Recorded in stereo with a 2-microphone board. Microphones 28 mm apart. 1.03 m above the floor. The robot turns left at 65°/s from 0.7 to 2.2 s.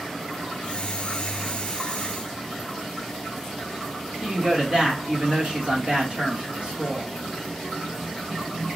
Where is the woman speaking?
40° right (ahead or behind), 1.1 m.